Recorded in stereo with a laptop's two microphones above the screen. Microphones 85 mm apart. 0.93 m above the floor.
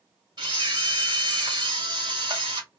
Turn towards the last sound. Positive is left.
turn(degrees=-55)  # may be behind; listen again after turning